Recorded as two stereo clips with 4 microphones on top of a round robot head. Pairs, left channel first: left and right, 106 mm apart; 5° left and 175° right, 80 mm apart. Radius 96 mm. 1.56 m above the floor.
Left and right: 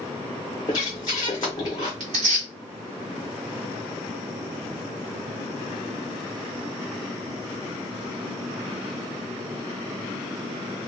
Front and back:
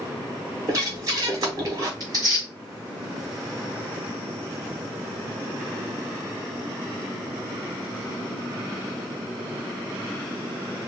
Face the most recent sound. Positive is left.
turn(degrees=-115)